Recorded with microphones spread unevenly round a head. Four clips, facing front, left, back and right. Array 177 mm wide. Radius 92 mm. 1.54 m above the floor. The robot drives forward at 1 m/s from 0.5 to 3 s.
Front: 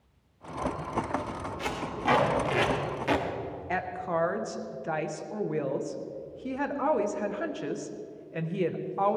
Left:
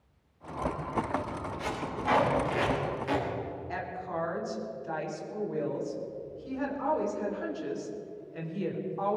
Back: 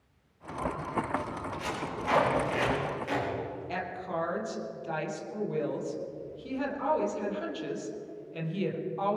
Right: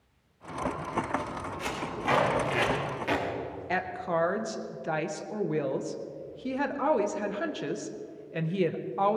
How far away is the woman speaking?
About 1.6 m.